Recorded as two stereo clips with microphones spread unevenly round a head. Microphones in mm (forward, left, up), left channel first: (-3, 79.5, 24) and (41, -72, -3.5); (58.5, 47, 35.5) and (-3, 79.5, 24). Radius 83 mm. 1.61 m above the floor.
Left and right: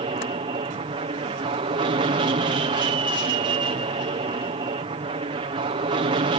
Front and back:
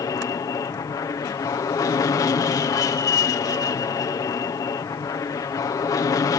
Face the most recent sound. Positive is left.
turn(degrees=-40)